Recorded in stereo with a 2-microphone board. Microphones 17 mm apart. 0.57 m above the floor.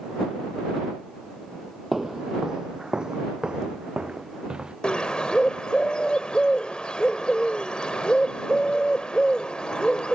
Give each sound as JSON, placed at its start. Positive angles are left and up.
{"t": 1.9, "sound": "footsteps", "side_deg": -20}
{"t": 4.8, "sound": "a bird", "side_deg": 80}